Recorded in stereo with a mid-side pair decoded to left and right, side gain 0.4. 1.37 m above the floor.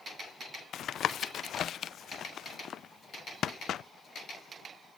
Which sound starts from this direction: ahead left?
Tapping, at 0.7 s.